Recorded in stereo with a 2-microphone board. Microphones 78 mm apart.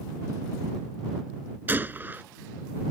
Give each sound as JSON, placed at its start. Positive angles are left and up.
{"t": 1.7, "sound": "a gunshot", "side_deg": -25}